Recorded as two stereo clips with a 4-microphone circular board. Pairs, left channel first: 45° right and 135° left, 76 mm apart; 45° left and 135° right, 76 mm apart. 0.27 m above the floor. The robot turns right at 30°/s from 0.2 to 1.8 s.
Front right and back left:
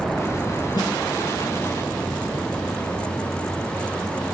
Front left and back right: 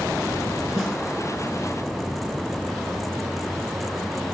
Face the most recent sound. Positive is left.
turn(degrees=-20)